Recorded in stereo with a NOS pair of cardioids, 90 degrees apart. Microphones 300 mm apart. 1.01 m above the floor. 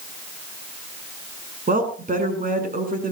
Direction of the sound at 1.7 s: 30° right.